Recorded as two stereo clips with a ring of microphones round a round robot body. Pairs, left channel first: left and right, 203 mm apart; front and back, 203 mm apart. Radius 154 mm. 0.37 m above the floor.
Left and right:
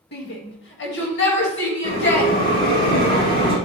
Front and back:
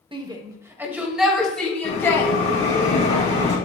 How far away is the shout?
About 1.8 m.